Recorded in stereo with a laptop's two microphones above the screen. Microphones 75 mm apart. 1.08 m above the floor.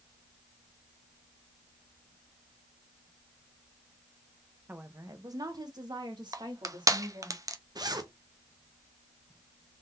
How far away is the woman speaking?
About 0.6 m.